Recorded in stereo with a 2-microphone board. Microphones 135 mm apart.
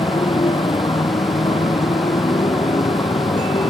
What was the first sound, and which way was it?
A motorcycle, 40° left (ahead or behind).